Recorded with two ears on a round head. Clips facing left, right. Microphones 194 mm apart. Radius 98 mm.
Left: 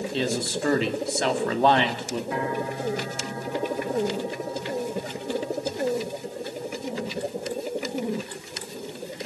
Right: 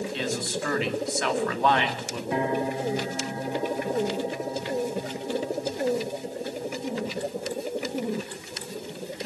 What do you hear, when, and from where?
0.1 s a man speaking: 30° left (ahead or behind), 2.5 m
2.3 s a piano: 20° right (ahead or behind), 0.9 m